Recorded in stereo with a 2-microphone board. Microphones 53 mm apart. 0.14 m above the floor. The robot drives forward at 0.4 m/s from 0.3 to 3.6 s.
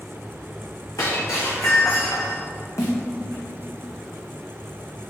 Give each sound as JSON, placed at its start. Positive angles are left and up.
{"t": 1.0, "sound": "breaking glass", "side_deg": 80, "distance_m": 3.5}
{"t": 2.8, "sound": "a snare drum", "side_deg": 75, "distance_m": 2.5}